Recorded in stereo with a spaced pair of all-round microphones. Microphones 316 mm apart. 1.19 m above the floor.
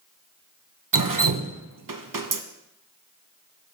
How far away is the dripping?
About 0.7 m.